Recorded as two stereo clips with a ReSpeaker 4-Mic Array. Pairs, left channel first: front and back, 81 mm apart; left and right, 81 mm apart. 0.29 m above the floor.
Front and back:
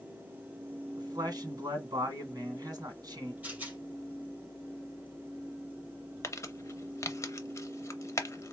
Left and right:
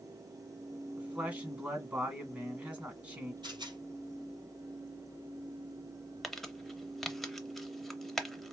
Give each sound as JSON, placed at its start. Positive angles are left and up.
{"t": 1.0, "sound": "a man speaking", "azimuth_deg": -155, "distance_m": 2.0}
{"t": 3.4, "sound": "a rattle", "azimuth_deg": -110, "distance_m": 3.0}
{"t": 6.2, "sound": "crumpling", "azimuth_deg": 5, "distance_m": 0.6}